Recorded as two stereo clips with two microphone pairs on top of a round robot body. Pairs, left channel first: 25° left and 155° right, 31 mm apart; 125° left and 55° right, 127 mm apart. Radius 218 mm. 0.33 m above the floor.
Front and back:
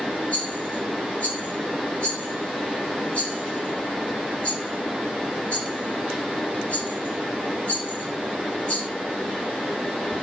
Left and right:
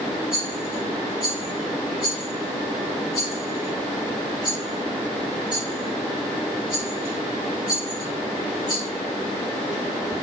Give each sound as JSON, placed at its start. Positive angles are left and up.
{"t": 0.3, "sound": "a rattle", "azimuth_deg": 75, "distance_m": 2.0}